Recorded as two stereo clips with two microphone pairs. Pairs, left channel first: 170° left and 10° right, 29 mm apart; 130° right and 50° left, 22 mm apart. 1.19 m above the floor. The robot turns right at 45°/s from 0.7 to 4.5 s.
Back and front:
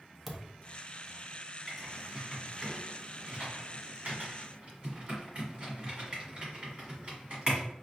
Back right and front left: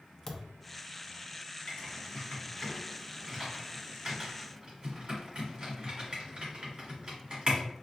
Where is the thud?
90° right, 0.6 m.